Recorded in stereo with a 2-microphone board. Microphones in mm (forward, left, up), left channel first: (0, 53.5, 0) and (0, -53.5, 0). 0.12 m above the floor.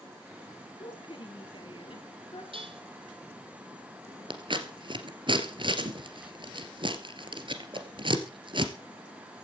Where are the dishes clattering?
60° right (ahead or behind), 2.5 m.